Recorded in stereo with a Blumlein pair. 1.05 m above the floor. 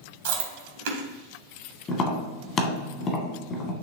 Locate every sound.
0.2 s chewing: 55° right, 1.6 m
1.9 s tapping: 25° left, 1.7 m